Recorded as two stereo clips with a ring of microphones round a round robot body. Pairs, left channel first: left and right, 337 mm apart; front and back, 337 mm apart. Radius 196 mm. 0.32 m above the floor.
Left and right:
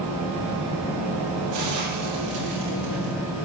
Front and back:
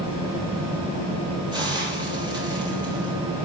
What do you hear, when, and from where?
1.5 s a hiss: 100° right, 7.5 m